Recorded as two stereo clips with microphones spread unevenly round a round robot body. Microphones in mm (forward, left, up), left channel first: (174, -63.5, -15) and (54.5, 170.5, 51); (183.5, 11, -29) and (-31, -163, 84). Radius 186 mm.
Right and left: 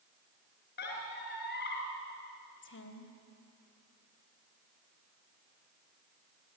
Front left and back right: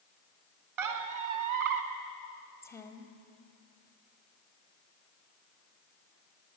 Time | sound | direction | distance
0.8 | a squeak | 130° right | 1.8 m
2.6 | a woman speaking | 30° right | 3.5 m